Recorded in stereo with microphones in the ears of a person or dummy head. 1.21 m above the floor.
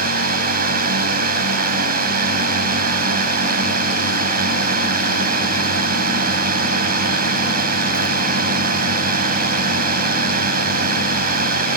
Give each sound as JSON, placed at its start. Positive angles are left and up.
{"t": 0.0, "sound": "a drone", "side_deg": -50}